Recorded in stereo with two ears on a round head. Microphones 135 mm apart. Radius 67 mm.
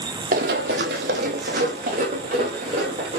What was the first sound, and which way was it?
Running footsteps, 60° right (ahead or behind).